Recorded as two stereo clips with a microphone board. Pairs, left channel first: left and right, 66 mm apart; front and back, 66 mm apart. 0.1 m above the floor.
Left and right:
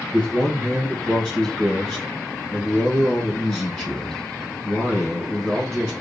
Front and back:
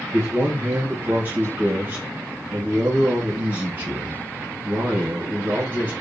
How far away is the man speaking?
About 1.1 m.